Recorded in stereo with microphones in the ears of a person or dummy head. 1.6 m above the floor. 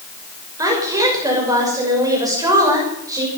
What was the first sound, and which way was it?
A woman speaking, 20° right (ahead or behind).